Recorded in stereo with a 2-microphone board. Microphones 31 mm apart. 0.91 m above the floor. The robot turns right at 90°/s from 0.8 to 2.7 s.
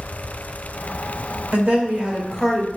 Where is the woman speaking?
90° right, 1.1 m; by 2.7 s 10° left, 1.1 m.